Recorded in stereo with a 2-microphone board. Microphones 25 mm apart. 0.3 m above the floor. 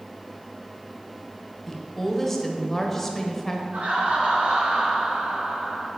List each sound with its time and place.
1.7 s a woman speaking: 10° left (ahead or behind), 1.1 m
3.7 s laughter: 60° right (ahead or behind), 3 m